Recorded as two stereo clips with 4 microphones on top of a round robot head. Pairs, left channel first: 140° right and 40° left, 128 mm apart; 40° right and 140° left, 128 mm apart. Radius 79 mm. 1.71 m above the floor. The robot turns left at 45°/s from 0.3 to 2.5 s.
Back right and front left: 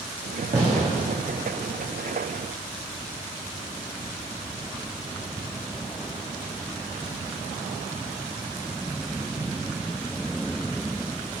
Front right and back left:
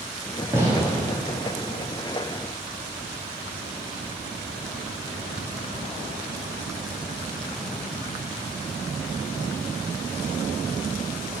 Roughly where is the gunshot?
Left.